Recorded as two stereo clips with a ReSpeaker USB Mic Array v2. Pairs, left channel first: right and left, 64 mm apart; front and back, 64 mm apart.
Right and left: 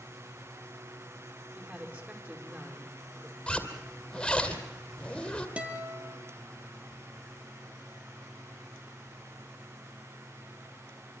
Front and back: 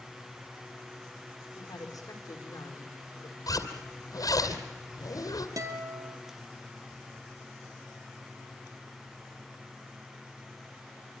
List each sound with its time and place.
1.6 s a woman speaking: 25° left, 5.5 m
3.5 s a zipper: 10° right, 2.5 m
5.6 s a guitar: 160° left, 3 m